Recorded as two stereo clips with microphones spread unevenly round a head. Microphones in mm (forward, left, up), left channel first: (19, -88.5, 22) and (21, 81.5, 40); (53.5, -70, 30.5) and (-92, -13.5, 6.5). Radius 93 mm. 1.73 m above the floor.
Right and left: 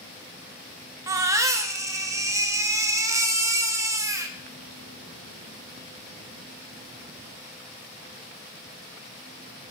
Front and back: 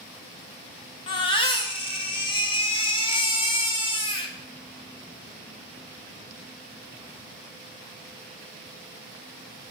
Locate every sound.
1.1 s a baby crying: 25° left, 0.9 m